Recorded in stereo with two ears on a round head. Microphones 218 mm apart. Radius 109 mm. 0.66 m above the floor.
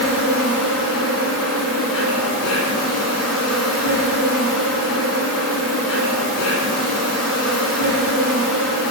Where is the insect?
70° left (ahead or behind), 2 m.